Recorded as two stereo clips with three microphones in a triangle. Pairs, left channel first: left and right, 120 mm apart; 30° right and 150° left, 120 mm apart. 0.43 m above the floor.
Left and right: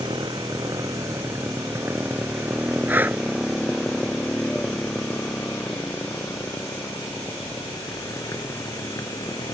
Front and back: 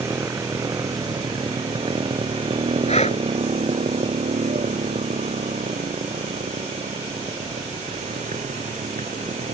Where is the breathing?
15° right.